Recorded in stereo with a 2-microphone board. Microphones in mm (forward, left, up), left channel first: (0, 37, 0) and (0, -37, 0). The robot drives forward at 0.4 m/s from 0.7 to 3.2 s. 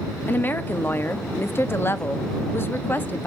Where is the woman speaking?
25° left (ahead or behind), 0.9 m.